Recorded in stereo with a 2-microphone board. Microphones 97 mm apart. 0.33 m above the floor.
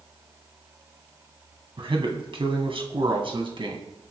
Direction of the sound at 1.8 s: 60° right (ahead or behind).